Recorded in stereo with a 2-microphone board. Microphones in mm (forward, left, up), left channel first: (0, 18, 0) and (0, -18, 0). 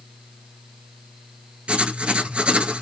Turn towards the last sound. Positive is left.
turn(degrees=-30)  # may be behind; listen again after turning